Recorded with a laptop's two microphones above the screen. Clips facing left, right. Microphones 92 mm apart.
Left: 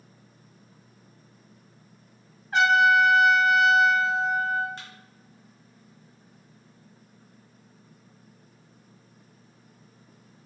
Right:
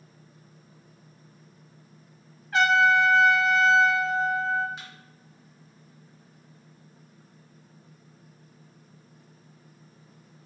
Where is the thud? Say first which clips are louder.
Even; 5° right (ahead or behind), 0.8 m.